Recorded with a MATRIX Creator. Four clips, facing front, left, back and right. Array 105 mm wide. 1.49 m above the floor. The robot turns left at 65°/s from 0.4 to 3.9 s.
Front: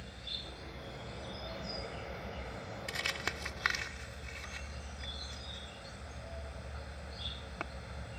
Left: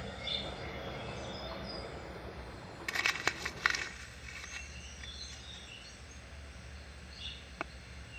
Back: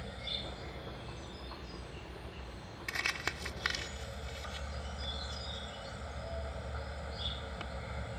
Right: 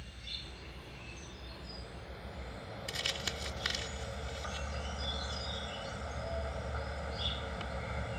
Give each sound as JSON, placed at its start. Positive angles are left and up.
{"t": 0.0, "sound": "an insect", "azimuth_deg": 115}
{"t": 2.9, "sound": "crumpling", "azimuth_deg": 115}